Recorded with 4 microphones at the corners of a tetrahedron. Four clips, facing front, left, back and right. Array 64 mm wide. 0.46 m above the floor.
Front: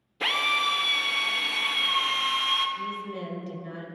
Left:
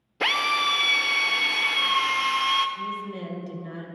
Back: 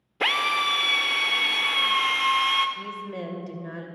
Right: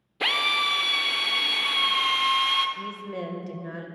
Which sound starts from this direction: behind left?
A drill, at 0.2 s.